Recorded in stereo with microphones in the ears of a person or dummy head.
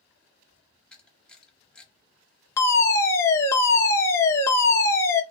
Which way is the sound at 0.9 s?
Centre (ahead or behind).